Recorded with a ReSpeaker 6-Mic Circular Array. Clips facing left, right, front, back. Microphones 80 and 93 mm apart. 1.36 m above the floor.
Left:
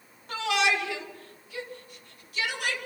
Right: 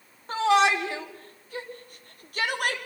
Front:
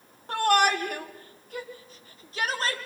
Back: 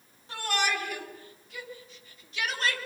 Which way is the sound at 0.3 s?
35° right.